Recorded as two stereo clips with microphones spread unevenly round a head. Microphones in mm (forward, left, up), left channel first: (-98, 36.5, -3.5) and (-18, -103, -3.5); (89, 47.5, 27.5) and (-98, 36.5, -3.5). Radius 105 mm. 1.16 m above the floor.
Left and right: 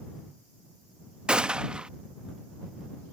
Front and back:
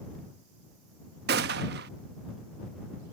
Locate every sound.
1.3 s a gunshot: 145° right